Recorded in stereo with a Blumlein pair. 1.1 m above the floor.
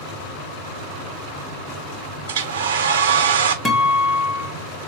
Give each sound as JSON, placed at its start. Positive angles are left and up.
{"t": 2.3, "sound": "a hair dryer", "azimuth_deg": -60, "distance_m": 0.7}
{"t": 3.6, "sound": "a guitar", "azimuth_deg": 10, "distance_m": 1.1}